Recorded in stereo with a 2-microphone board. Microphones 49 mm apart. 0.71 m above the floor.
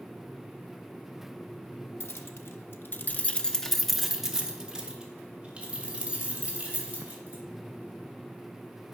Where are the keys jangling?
60° left (ahead or behind), 1.1 m; by 7.4 s 30° right (ahead or behind), 3.5 m.